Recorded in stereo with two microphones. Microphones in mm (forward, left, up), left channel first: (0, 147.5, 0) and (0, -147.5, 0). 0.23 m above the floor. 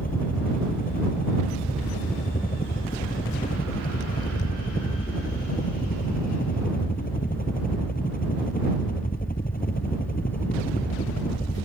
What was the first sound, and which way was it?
A helicopter, 30° left (ahead or behind).